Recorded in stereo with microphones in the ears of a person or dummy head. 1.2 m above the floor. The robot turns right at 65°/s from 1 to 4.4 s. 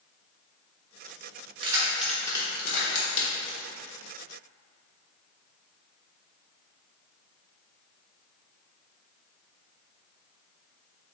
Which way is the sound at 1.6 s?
30° right (ahead or behind).